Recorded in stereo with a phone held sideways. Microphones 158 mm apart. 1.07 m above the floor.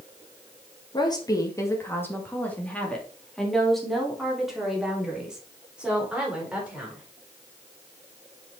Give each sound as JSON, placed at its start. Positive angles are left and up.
{"t": 0.9, "sound": "a woman speaking", "side_deg": 25, "distance_m": 1.5}